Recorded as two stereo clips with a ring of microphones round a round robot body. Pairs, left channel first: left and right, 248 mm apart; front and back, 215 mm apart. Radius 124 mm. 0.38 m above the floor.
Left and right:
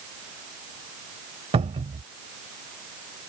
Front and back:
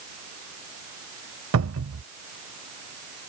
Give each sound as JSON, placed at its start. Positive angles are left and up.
{"t": 1.5, "sound": "a cupboard door", "azimuth_deg": -155}